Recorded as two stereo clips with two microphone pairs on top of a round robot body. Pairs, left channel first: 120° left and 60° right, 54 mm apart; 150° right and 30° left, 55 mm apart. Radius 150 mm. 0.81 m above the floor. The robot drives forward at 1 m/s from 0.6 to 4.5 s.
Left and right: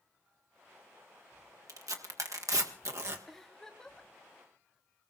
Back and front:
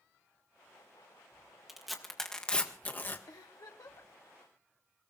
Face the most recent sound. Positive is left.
turn(degrees=-165)